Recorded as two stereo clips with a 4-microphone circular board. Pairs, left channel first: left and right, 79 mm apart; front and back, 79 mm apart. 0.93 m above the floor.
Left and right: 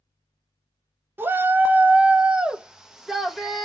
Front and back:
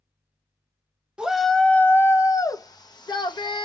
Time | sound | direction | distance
1.2 | a shout | 115° right | 0.6 m